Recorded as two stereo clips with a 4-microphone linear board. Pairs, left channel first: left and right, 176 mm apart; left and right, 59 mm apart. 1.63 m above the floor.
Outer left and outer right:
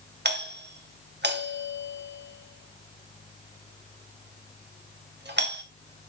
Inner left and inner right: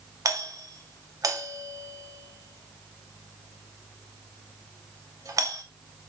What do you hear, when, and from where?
0.2 s a doorbell: 80° right, 2.5 m